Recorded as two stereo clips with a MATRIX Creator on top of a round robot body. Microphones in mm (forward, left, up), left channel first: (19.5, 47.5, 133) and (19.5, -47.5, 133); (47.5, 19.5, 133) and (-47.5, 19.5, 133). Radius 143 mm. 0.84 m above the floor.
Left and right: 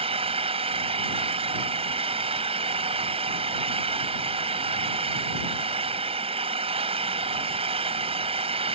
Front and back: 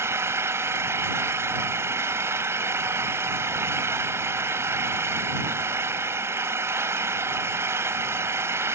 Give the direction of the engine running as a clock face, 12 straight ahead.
4 o'clock.